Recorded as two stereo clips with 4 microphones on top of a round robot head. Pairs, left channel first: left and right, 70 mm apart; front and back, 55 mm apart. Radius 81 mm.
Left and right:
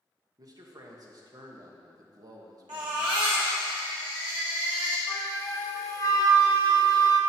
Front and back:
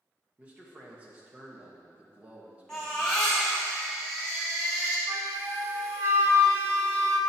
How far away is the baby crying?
About 1.7 m.